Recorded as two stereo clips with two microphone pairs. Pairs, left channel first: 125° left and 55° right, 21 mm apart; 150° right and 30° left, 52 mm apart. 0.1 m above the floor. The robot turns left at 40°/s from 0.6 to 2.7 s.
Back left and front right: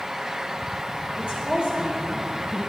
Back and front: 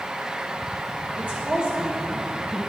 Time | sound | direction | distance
1.2 | a woman speaking | 25° right | 2.5 m